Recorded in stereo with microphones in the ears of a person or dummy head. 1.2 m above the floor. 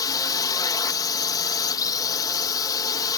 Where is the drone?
15° left (ahead or behind).